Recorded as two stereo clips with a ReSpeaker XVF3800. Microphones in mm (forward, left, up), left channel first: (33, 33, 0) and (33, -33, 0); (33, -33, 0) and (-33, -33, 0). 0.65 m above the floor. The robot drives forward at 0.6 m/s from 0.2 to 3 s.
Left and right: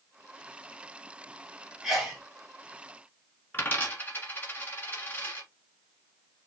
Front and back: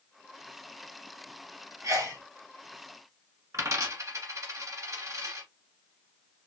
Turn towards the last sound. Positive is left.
turn(degrees=145)